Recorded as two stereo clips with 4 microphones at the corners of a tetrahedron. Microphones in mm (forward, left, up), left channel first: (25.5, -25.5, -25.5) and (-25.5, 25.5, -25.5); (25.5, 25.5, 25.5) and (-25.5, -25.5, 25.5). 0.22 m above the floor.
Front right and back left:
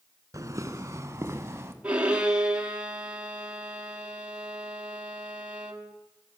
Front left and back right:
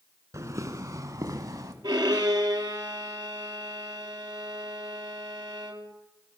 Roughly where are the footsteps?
Behind.